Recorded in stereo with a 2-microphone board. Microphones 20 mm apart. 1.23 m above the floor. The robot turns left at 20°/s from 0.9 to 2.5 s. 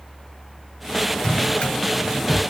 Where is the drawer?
60° left (ahead or behind), 1.7 m; by 2.4 s 50° left (ahead or behind), 1.7 m.